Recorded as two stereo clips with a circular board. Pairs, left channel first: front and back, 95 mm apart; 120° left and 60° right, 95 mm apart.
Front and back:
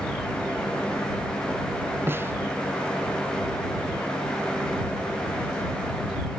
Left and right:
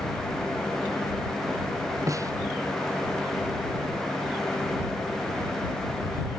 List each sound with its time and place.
2.1 s a snare drum: 115° right